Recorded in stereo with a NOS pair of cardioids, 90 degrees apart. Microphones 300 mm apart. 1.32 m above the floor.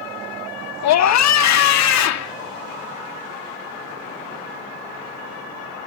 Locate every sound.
0.8 s a scream: 65° left